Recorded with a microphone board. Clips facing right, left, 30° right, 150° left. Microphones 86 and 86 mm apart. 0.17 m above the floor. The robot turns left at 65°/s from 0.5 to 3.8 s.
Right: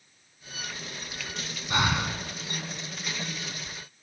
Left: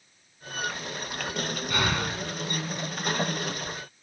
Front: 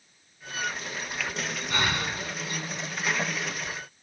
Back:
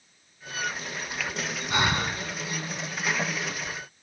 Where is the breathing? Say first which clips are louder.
Right 2 dB, back 3 dB; 145° right, 1.6 m; by 2.2 s straight behind, 1.6 m.